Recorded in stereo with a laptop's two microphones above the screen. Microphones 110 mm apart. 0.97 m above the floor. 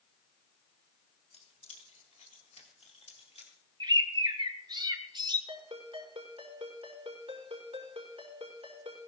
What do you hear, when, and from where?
1.3 s keys jangling: 65° left (ahead or behind), 2 m
3.8 s a bird: 40° right (ahead or behind), 0.9 m
5.5 s a ringtone: 60° right (ahead or behind), 6 m